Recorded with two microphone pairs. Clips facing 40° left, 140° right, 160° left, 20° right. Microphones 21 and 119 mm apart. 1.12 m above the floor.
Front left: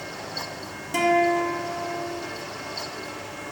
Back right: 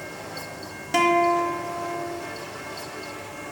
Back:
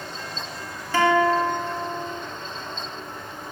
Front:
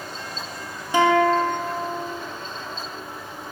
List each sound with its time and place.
0.9 s a guitar: 90° right, 0.8 m